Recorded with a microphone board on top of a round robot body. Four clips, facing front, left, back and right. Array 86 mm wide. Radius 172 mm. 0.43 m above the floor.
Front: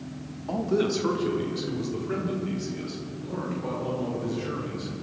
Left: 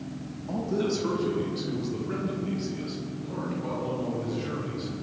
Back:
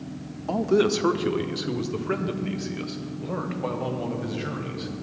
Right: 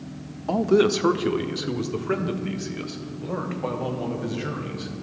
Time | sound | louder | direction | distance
0.5 | a man speaking | right 9 dB, back 4 dB | 115° right | 1.1 m